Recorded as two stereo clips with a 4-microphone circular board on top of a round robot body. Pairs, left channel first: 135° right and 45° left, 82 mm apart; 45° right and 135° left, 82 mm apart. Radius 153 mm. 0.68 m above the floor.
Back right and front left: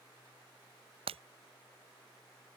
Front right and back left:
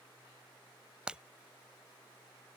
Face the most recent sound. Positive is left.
turn(degrees=55)